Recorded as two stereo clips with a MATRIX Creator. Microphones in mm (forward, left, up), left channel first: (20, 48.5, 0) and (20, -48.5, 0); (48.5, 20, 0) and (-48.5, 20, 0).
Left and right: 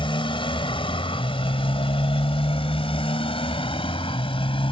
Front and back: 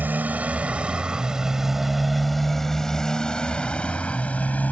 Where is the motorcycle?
110° left; by 4.7 s 70° left.